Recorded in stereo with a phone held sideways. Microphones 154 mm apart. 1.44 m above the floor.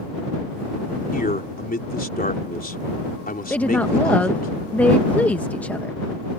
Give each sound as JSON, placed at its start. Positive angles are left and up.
{"t": 1.1, "sound": "a man speaking", "side_deg": 75}
{"t": 3.5, "sound": "a woman speaking", "side_deg": 10}